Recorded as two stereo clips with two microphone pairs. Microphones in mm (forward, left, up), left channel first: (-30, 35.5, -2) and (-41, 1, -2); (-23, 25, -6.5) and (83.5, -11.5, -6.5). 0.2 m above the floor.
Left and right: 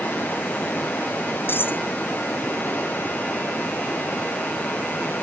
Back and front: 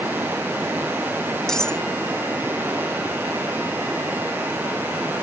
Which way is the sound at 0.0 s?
55° left.